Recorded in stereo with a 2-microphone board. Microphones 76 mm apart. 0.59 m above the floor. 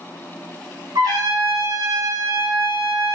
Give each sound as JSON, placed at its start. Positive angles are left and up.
{"t": 0.9, "sound": "a trumpet", "side_deg": -65, "distance_m": 0.9}